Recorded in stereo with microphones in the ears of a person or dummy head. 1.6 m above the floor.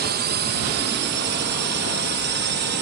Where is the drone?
45° right (ahead or behind); by 2.8 s 50° right (ahead or behind).